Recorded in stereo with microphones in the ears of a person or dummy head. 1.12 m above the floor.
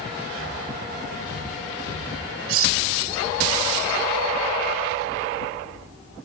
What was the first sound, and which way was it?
Cutlery clinking, 80° right.